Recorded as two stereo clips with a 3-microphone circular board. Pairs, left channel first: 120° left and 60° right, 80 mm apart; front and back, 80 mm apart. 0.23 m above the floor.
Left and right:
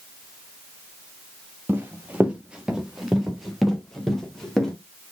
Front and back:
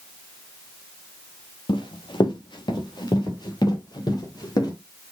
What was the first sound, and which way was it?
Running footsteps, 5° left.